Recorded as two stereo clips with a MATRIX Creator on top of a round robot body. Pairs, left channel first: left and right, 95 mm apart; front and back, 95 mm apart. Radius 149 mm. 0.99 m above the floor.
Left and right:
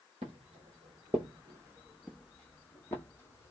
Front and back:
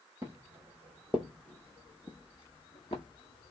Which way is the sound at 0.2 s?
110° right.